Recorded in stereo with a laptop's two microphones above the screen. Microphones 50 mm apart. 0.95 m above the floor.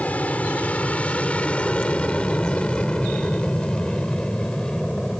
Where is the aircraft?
30° left (ahead or behind); by 5.2 s 15° left (ahead or behind).